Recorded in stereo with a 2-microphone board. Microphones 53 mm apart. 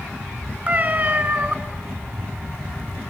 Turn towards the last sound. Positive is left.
turn(degrees=-25)  # may be behind; listen again after turning